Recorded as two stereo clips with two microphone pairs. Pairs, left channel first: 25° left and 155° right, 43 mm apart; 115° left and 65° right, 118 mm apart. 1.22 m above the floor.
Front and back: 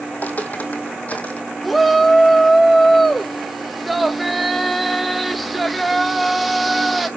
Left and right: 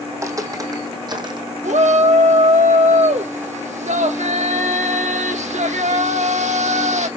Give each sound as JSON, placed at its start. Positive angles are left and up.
{"t": 0.1, "sound": "footsteps", "azimuth_deg": -5, "distance_m": 2.0}
{"t": 1.6, "sound": "a shout", "azimuth_deg": -60, "distance_m": 1.6}